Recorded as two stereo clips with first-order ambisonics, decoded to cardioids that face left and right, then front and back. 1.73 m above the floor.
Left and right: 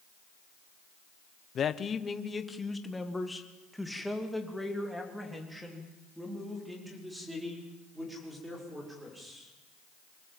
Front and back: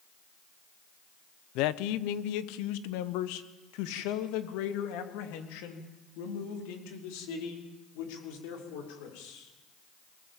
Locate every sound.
1.6 s a man speaking: 30° left, 0.8 m; by 9.5 s 5° right, 6.5 m